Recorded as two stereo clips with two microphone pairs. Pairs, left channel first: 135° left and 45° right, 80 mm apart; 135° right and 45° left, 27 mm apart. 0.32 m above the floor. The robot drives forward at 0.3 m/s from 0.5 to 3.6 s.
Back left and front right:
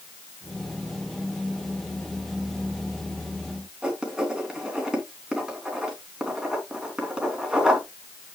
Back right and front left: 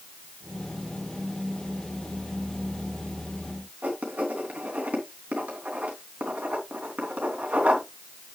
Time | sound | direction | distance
3.8 | writing | 35° left | 3 m